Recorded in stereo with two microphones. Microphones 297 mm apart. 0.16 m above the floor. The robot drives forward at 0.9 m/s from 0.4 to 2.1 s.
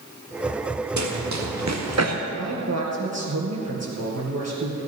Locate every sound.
1.0 s running footsteps: 70° right (ahead or behind), 2 m; by 2.1 s 55° right (ahead or behind), 2.0 m
2.3 s a man speaking: 60° right (ahead or behind), 3 m